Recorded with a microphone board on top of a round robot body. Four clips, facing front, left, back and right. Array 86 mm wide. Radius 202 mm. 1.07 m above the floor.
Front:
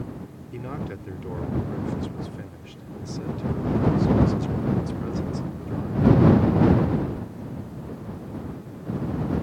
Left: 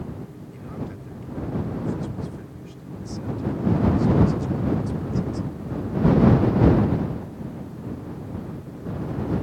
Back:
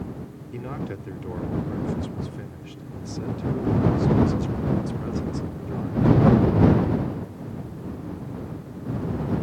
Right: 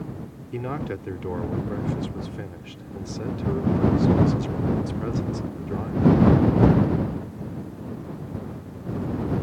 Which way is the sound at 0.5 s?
90° right.